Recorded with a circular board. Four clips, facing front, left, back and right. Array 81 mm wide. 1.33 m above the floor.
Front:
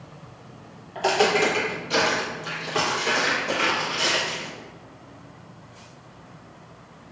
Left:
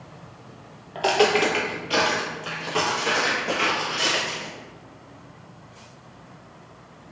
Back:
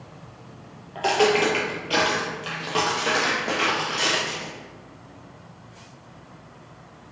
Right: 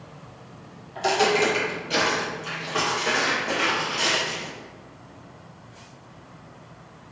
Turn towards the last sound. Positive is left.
turn(degrees=180)